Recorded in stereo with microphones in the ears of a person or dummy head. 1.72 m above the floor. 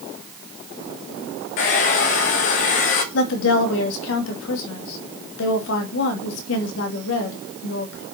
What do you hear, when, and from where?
1.6 s a hair dryer: 50° left (ahead or behind), 1.2 m
3.1 s a woman speaking: 75° left (ahead or behind), 2.5 m